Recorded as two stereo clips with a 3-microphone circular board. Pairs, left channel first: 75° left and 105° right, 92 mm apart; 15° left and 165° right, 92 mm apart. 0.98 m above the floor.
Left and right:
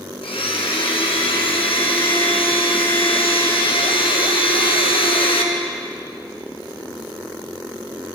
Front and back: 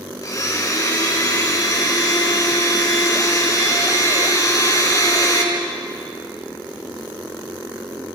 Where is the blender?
70° left, 4 m.